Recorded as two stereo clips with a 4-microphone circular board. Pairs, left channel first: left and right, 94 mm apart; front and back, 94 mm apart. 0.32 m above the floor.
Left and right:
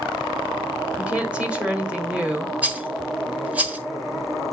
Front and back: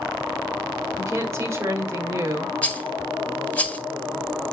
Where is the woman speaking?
155° right, 1.6 m.